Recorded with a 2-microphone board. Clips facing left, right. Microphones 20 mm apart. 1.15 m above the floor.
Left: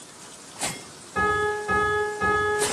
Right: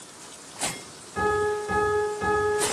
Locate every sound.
1.1 s a piano: 35° left (ahead or behind), 3 m